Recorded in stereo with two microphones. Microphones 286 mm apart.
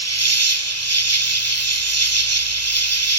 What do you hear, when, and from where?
0.0 s an insect: 65° right (ahead or behind), 0.9 m